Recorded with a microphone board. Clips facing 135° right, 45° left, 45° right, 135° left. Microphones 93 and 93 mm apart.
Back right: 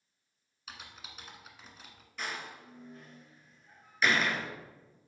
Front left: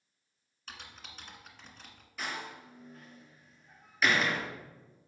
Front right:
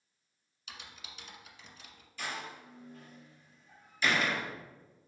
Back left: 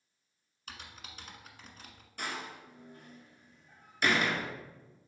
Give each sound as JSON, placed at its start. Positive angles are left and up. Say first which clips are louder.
{"t": 0.7, "sound": "typing on a keyboard", "louder": "even, back left 2 dB", "azimuth_deg": 145, "distance_m": 1.3}
{"t": 2.2, "sound": "a door slam", "louder": "front left 1 dB, back left 1 dB", "azimuth_deg": 135, "distance_m": 2.0}